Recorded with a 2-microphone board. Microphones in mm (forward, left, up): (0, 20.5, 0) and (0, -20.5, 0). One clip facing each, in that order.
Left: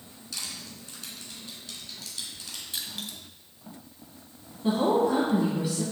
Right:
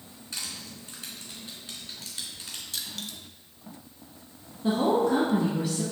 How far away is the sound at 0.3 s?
About 2 m.